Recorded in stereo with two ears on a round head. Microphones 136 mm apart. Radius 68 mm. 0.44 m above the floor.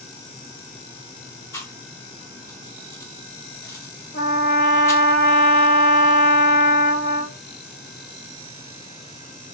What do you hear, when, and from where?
1.5 s chewing: 20° left (ahead or behind), 1.0 m
4.1 s a trumpet: 60° left (ahead or behind), 2.5 m